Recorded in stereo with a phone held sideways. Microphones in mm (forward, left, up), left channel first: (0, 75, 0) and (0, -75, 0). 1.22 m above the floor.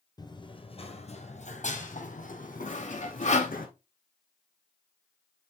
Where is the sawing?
50° left (ahead or behind), 1.5 m.